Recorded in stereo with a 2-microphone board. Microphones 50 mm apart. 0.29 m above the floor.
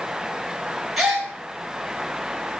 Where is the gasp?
5° right (ahead or behind), 1.5 m.